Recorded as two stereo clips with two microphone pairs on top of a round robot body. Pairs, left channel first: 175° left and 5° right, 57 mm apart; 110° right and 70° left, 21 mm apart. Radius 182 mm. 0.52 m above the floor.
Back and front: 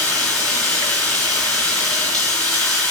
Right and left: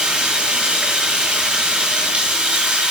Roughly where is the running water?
Left.